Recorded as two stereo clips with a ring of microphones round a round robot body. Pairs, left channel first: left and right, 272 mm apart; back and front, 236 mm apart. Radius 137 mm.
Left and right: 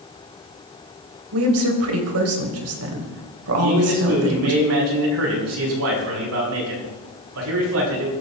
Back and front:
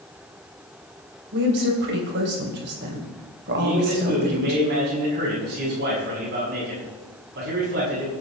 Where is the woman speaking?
55° right, 3 m.